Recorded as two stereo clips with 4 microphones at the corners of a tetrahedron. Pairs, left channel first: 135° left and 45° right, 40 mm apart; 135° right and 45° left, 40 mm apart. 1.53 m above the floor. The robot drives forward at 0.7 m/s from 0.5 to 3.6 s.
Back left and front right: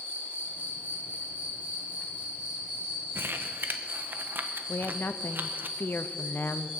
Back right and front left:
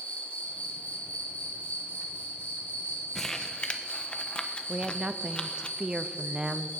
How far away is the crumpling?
About 1.0 m.